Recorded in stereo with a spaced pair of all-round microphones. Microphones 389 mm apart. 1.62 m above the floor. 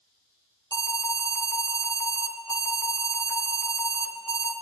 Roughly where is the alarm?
Right.